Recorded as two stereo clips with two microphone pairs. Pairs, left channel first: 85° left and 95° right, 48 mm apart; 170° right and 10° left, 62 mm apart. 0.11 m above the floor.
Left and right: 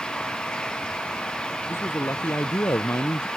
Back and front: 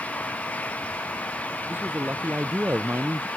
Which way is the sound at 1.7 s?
70° left.